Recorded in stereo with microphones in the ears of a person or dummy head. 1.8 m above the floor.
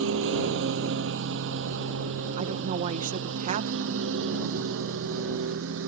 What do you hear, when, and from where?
0.0 s a lawn mower: 75° right (ahead or behind); by 5.9 s 80° right
2.4 s a woman speaking: 50° right (ahead or behind)